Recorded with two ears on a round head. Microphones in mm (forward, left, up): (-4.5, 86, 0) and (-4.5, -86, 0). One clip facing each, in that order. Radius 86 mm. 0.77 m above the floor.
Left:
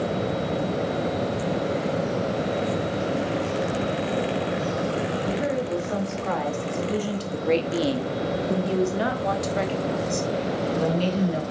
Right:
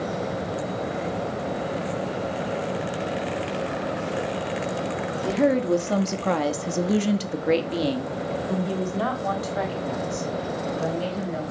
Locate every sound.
5.2 s a woman speaking: 65° right (ahead or behind), 1.8 m; by 11.4 s 40° left (ahead or behind), 3.5 m